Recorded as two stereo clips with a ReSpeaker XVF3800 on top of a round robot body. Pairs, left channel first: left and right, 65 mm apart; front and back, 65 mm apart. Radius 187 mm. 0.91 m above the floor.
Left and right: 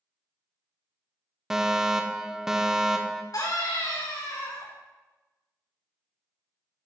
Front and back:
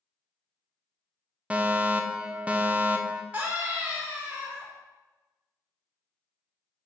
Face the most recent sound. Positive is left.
turn(degrees=110)